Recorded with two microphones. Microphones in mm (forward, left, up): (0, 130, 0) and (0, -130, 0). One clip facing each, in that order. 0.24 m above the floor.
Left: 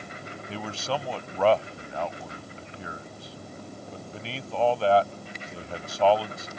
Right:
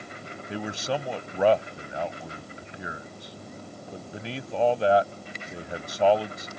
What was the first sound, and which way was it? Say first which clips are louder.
A man speaking: right 2 dB; 15° right (ahead or behind).